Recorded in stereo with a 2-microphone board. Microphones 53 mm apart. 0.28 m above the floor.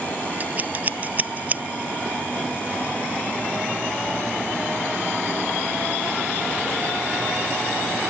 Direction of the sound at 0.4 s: 35° right (ahead or behind).